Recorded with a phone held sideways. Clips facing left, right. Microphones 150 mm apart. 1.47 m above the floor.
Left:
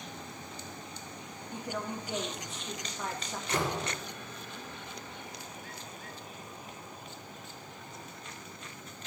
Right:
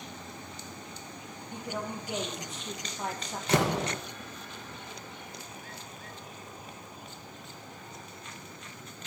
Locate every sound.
1.5 s a woman speaking: 20° right (ahead or behind), 1.7 m
3.5 s a door slam: 75° right (ahead or behind), 1.2 m